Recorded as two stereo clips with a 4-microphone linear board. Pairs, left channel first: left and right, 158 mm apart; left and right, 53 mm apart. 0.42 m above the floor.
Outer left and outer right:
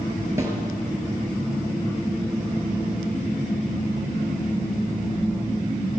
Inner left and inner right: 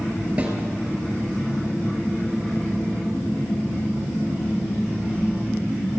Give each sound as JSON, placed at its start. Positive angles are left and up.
{"t": 0.4, "sound": "a snare drum", "side_deg": -20, "distance_m": 3.5}